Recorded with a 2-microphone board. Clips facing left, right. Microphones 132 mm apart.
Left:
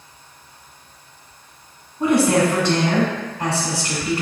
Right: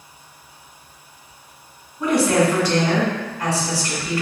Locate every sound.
2.0 s a woman speaking: 25° left (ahead or behind), 1.6 m